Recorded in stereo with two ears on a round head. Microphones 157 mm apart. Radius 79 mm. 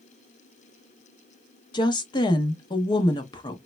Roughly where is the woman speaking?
Left.